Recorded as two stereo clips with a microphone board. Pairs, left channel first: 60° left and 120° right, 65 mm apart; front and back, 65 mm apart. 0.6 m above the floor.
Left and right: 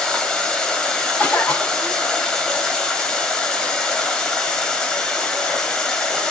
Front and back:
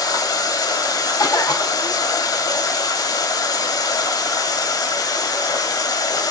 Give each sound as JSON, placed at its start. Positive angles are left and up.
{"t": 0.0, "sound": "running water", "azimuth_deg": -20, "distance_m": 1.5}
{"t": 1.2, "sound": "a cough", "azimuth_deg": 0, "distance_m": 4.5}